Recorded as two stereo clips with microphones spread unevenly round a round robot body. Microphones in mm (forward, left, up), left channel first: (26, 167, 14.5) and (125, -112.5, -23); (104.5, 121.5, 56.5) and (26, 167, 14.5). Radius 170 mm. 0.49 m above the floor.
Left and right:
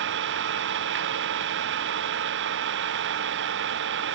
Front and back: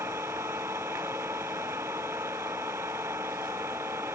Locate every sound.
0.0 s an engine running: 130° right